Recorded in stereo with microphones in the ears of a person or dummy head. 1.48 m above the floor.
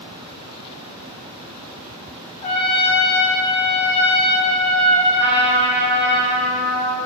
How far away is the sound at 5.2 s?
About 1.2 m.